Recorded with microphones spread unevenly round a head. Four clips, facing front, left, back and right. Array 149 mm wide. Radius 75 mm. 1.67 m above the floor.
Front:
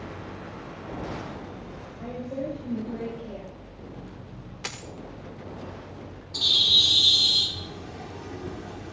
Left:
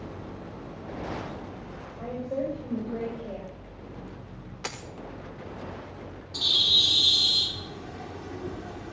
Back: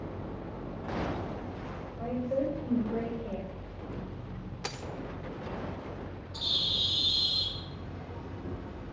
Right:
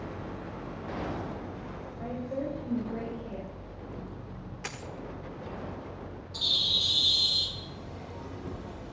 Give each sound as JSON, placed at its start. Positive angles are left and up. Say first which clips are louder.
{"t": 2.0, "sound": "a woman speaking", "louder": "left 3 dB, back 2 dB", "azimuth_deg": 115, "distance_m": 7.0}
{"t": 4.6, "sound": "a dropped coin", "louder": "left 4 dB, even", "azimuth_deg": 100, "distance_m": 1.4}
{"t": 6.3, "sound": "a bird", "louder": "left 6 dB, front 9 dB", "azimuth_deg": 50, "distance_m": 2.5}